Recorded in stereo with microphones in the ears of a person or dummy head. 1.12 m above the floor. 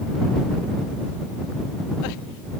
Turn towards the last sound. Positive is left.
No sound to turn to.